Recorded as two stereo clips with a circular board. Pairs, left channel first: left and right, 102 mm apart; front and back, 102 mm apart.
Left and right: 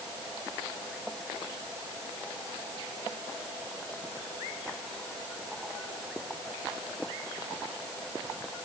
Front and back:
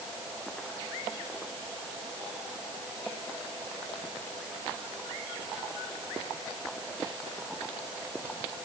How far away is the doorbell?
No doorbell in this recording.